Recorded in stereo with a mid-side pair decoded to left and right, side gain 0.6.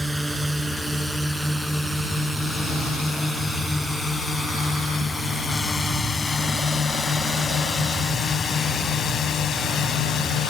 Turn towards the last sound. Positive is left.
turn(degrees=60)